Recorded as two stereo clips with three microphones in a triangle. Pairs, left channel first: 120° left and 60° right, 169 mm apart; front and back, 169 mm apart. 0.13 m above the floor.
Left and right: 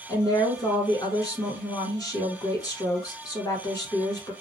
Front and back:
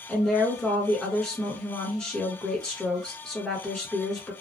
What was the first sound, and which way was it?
A woman speaking, 80° left.